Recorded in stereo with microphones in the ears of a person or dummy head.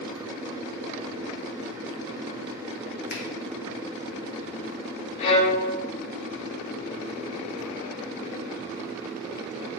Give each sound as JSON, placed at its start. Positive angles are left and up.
{"t": 3.1, "sound": "a finger snap", "side_deg": 45, "distance_m": 0.9}
{"t": 5.2, "sound": "a violin", "side_deg": 40, "distance_m": 0.5}